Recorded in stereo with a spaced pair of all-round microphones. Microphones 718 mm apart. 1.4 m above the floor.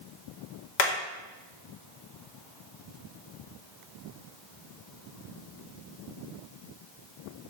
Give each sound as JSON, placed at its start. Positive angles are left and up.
{"t": 0.8, "sound": "hammering", "side_deg": 80, "distance_m": 2.0}